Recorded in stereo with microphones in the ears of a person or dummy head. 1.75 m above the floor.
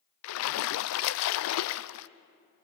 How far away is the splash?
About 0.6 m.